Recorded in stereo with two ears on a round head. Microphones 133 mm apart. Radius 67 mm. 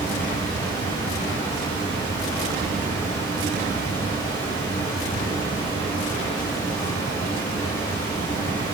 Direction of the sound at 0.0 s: 40° left (ahead or behind).